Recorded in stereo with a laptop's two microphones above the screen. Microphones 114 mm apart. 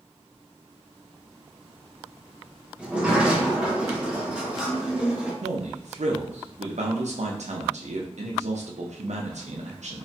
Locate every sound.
2.8 s a sliding door: 10° right (ahead or behind), 0.6 m
5.4 s a man speaking: 85° right, 0.6 m